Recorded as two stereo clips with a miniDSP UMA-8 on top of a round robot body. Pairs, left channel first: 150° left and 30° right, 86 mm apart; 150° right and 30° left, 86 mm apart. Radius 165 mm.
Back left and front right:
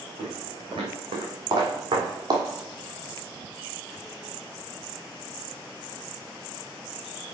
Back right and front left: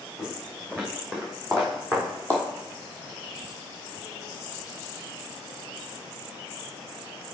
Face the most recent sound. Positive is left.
turn(degrees=-80)